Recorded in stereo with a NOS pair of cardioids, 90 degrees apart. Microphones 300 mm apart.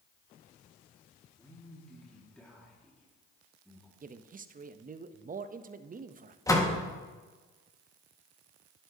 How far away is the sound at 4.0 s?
About 0.6 m.